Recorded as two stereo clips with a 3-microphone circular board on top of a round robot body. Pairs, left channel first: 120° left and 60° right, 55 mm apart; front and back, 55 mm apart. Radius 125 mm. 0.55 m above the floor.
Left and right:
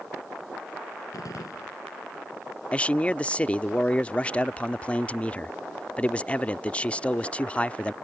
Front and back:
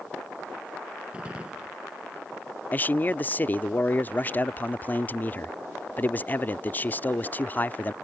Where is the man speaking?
55° left.